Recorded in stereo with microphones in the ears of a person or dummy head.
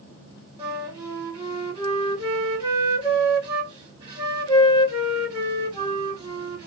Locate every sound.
0.6 s a flute: 20° right (ahead or behind), 1.5 m